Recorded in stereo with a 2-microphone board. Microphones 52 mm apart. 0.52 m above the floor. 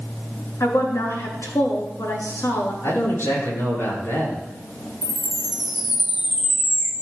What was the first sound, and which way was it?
A woman speaking, 80° left.